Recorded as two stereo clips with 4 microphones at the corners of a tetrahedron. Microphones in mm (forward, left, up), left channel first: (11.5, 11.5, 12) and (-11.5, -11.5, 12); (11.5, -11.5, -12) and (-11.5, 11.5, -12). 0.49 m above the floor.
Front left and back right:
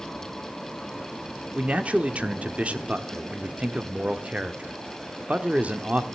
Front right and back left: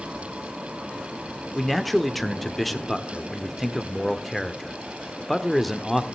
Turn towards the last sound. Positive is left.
turn(degrees=-130)